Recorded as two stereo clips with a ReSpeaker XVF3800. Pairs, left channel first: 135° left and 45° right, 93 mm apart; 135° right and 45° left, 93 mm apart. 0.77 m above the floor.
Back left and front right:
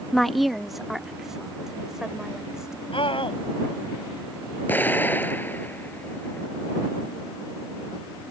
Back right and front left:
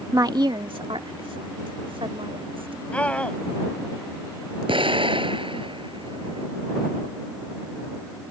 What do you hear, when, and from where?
0.1 s a woman speaking: 50° left; by 2.8 s 40° left
2.9 s a scream: 150° left
4.7 s an explosion: 65° left